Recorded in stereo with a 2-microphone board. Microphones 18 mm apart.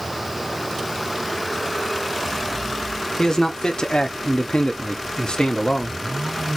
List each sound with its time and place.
3.2 s a man speaking: 35° left (ahead or behind), 0.9 m; by 6.0 s 60° left (ahead or behind), 1.3 m